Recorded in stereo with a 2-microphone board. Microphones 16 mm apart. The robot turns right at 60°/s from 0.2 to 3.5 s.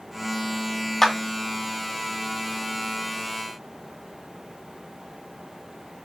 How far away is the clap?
About 3 m.